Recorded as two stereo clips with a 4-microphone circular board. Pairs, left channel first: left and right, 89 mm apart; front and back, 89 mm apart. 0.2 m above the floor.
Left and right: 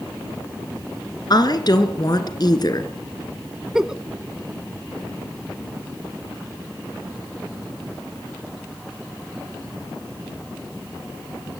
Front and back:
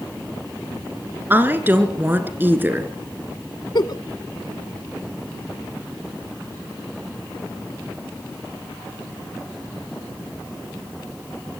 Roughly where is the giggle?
Ahead.